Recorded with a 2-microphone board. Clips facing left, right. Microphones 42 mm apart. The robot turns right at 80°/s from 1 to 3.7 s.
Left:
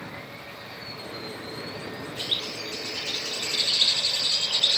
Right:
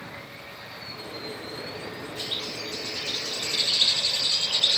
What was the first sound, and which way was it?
A bird, 35° left.